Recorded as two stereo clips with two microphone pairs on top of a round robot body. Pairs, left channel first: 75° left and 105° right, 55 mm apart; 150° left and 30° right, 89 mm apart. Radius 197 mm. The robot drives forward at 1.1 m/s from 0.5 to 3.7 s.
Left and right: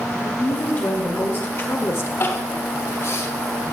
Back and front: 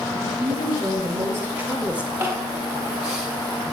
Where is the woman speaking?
25° left, 3.5 m; by 2.1 s 50° left, 2 m.